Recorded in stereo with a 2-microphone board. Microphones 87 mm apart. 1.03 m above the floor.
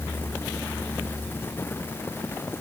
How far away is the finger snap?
No finger snap in this recording.